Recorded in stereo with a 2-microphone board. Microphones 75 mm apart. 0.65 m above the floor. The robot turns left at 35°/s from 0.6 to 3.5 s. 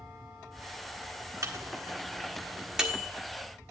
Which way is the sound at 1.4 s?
45° right (ahead or behind).